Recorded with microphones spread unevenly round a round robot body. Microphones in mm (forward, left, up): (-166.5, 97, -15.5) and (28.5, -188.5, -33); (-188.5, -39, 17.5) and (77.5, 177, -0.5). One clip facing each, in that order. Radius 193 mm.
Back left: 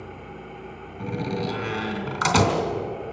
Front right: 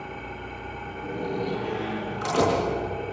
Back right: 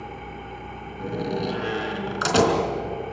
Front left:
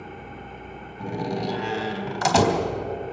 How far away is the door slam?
About 3.5 m.